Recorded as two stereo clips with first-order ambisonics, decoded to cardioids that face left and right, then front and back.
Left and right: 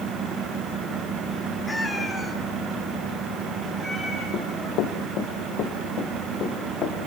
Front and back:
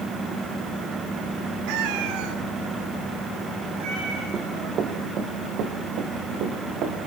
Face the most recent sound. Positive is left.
turn(degrees=145)